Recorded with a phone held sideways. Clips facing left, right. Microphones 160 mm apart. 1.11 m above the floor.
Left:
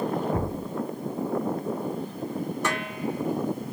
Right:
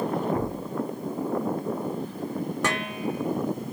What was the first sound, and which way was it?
A thud, 30° left (ahead or behind).